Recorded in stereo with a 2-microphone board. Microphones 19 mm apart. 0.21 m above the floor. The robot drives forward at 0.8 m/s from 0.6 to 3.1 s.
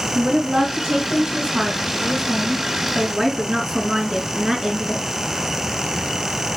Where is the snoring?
I don't hear snoring.